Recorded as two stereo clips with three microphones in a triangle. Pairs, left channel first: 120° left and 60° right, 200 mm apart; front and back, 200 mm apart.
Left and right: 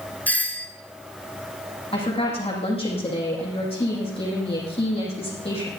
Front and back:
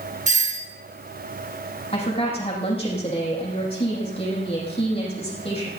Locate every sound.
0.3 s a doorbell: 165° right, 2.5 m
1.9 s a woman speaking: 60° left, 7.5 m